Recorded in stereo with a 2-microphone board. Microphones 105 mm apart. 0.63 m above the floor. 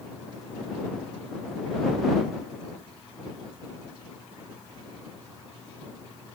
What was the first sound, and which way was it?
Only background noise.